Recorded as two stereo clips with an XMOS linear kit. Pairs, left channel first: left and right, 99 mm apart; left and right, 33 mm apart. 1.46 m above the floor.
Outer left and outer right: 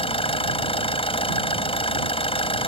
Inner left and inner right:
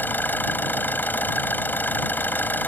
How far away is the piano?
I don't hear a piano.